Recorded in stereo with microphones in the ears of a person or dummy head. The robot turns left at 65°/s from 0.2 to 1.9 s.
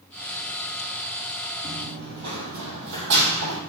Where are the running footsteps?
45° right (ahead or behind), 1.7 m; by 3.6 s 65° right (ahead or behind), 3 m.